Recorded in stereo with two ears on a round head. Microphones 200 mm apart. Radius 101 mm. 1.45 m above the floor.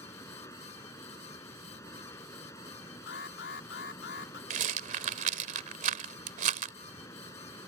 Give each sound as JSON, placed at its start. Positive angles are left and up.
{"t": 0.0, "sound": "running water", "side_deg": 15}
{"t": 3.1, "sound": "an alarm", "side_deg": 50}
{"t": 4.5, "sound": "a rattle", "side_deg": -35}